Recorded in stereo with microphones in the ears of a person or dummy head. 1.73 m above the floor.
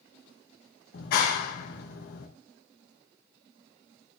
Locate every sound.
0.9 s a clap: 60° left (ahead or behind), 2 m